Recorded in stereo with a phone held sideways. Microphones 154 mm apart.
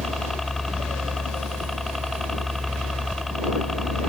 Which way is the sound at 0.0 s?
Centre (ahead or behind).